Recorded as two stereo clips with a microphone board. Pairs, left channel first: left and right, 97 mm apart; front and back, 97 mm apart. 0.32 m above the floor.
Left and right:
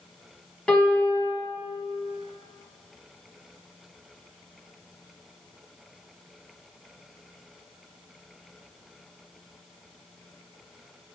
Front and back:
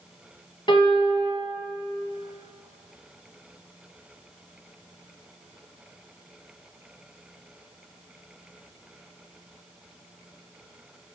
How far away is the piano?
About 2.5 m.